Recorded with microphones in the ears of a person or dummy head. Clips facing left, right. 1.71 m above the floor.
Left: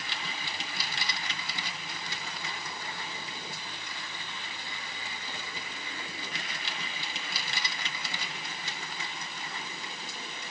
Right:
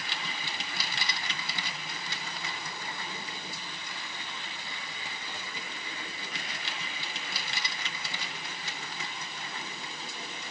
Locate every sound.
Only background noise.